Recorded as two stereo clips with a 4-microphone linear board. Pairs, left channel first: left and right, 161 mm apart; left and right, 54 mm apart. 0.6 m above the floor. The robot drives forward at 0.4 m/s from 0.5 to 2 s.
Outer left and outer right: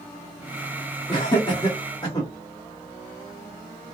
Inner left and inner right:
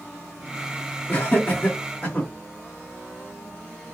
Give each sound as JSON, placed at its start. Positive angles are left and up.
{"t": 1.1, "sound": "laughter", "side_deg": 30, "distance_m": 1.3}